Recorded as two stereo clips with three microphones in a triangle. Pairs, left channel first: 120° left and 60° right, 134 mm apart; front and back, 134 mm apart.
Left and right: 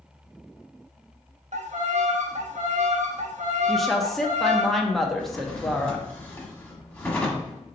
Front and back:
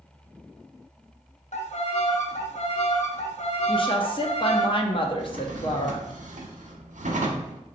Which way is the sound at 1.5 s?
35° right.